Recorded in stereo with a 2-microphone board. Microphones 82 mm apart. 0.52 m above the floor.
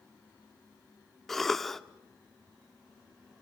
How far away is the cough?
About 1.0 m.